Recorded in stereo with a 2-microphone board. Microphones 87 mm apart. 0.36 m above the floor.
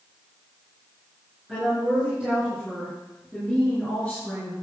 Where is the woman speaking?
15° right (ahead or behind), 5.5 m; by 4.5 s 10° left (ahead or behind), 5.5 m.